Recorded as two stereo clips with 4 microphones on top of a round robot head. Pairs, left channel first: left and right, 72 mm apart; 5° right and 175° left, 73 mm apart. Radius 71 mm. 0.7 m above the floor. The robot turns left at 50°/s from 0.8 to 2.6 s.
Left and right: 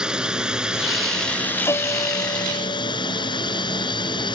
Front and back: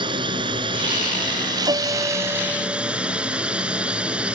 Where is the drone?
170° right; by 4.4 s 100° left.